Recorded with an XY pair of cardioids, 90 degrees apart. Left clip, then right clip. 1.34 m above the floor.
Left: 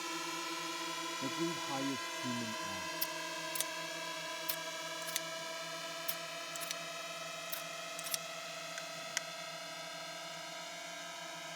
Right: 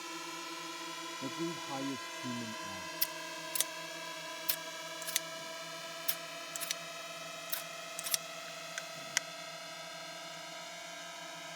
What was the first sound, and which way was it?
A drone, 25° left.